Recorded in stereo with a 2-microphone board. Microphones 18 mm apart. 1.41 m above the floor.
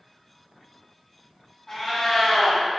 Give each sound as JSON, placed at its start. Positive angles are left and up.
{"t": 1.7, "sound": "a cat meowing", "side_deg": 10, "distance_m": 1.1}